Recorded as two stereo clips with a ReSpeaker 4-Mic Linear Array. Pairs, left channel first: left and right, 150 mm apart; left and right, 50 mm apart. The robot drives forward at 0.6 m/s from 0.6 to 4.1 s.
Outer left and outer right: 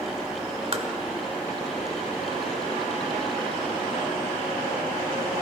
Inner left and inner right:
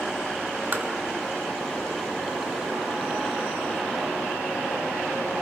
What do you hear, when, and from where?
0.7 s tapping: 40° right (ahead or behind), 1.2 m